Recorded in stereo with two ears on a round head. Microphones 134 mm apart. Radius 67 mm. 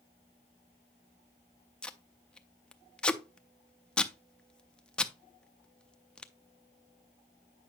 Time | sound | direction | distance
1.8 | tape being pulled | 5° left (ahead or behind) | 0.5 m